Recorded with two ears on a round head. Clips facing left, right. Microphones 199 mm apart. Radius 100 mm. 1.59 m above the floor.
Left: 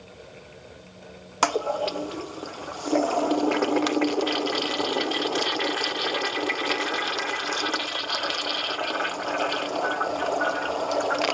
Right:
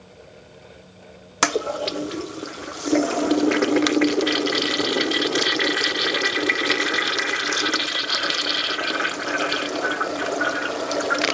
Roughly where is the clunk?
No clunk in this recording.